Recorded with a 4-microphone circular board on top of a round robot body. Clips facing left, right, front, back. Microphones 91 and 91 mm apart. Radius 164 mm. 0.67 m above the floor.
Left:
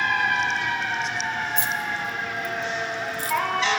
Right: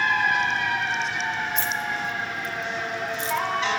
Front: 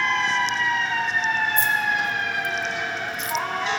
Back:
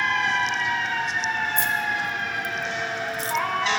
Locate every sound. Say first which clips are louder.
1.6 s keys jangling: even, front 2 dB; 160° left, 1.2 m; by 3.4 s 130° right, 0.6 m